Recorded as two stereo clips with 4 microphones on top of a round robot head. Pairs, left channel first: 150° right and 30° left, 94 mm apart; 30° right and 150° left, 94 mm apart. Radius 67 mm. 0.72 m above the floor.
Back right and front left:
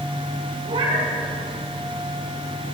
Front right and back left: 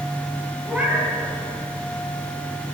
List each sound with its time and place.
0.7 s a cat meowing: 70° left, 2.5 m